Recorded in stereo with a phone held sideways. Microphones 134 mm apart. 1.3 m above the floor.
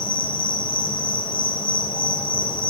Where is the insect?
35° left (ahead or behind), 0.9 m.